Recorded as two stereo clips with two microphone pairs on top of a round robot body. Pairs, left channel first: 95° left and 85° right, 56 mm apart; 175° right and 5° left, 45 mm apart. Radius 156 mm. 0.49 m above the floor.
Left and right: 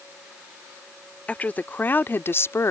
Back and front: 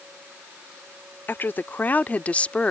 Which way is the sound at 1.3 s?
160° left.